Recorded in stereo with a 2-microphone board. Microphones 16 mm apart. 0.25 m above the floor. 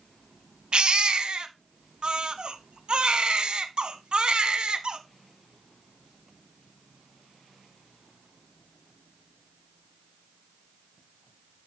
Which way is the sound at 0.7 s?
60° right (ahead or behind).